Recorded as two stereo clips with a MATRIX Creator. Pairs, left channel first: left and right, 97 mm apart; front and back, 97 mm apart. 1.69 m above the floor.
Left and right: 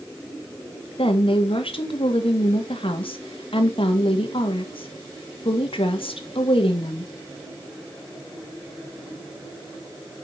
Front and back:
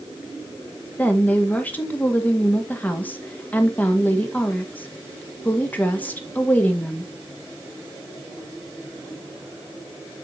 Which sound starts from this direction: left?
A woman speaking, at 1.0 s.